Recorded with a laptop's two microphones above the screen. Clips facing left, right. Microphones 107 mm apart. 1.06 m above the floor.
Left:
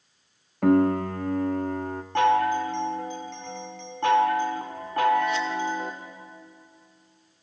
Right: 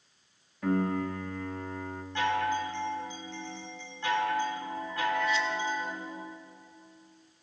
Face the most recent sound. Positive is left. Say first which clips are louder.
# left 8 dB
turn(degrees=60)  # may be behind; listen again after turning